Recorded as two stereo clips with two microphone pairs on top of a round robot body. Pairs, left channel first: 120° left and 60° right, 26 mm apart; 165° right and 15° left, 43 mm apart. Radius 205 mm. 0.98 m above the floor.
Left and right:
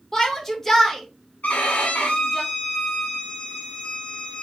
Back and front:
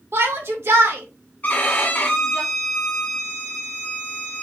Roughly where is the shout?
Ahead left.